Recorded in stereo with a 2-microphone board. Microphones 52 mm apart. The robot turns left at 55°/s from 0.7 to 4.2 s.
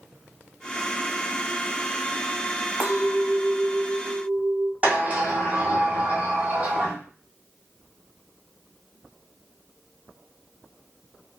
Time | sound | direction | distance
2.8 | a clink | 60° right | 0.8 m
4.8 | a sliding door | 25° right (ahead or behind) | 1.8 m